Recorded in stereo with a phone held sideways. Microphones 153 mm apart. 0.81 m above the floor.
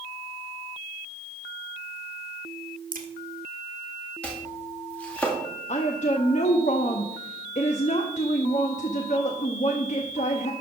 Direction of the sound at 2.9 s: 65° right (ahead or behind).